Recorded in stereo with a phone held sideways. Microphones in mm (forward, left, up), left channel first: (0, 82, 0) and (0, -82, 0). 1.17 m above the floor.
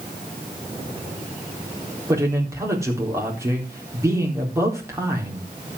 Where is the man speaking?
20° right (ahead or behind), 4 m.